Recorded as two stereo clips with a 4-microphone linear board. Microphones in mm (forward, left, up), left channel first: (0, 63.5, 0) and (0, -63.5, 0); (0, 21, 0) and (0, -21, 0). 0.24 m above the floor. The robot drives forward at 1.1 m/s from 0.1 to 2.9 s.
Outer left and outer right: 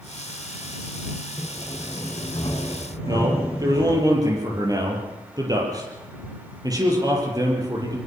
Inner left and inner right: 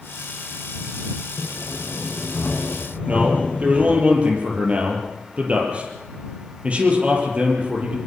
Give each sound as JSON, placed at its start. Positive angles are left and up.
{"t": 1.4, "sound": "sawing", "side_deg": 40, "distance_m": 9.5}
{"t": 3.1, "sound": "a man speaking", "side_deg": -30, "distance_m": 7.5}